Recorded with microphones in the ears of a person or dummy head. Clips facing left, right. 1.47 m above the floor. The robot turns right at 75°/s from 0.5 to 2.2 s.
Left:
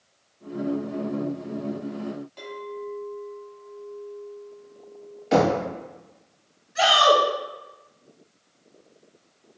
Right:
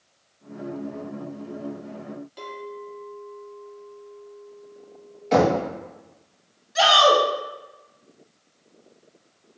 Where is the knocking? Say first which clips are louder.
Right 1 dB; 5° left (ahead or behind), 0.7 m.